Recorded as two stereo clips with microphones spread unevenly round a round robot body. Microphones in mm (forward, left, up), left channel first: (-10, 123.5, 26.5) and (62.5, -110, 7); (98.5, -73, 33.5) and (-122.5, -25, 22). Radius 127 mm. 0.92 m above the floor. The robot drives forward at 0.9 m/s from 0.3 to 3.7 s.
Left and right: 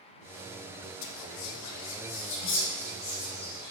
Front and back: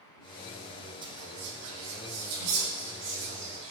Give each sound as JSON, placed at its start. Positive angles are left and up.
{"t": 1.0, "sound": "whispering", "azimuth_deg": 95, "distance_m": 0.8}